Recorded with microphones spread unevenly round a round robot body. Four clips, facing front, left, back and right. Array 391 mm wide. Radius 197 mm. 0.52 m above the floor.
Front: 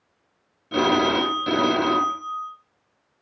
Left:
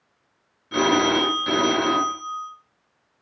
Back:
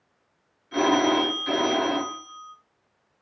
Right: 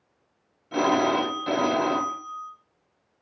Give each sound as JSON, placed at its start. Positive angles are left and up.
{"t": 0.7, "sound": "a phone ringing", "azimuth_deg": 15, "distance_m": 1.9}